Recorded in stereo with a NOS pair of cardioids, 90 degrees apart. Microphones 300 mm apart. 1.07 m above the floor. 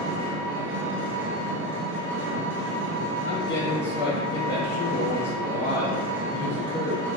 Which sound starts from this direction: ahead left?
A man speaking, at 3.2 s.